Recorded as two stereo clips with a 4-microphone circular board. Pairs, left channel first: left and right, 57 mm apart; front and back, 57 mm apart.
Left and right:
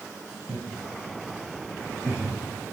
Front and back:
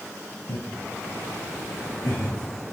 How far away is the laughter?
About 3.5 m.